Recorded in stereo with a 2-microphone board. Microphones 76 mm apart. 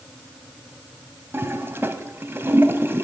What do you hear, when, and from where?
1.3 s a toilet flushing: 30° right (ahead or behind), 0.7 m